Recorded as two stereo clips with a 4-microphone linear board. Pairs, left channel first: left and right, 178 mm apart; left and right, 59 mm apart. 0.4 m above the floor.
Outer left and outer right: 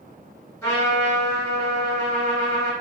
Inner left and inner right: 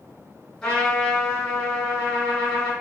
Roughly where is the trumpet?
Centre.